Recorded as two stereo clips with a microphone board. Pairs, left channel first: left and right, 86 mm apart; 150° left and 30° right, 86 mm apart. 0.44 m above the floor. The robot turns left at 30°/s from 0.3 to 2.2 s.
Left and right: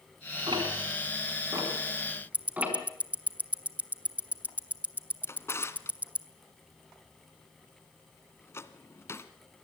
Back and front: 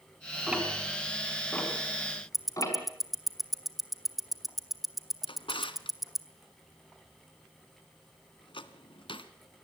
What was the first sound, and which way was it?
Ticking, 110° right.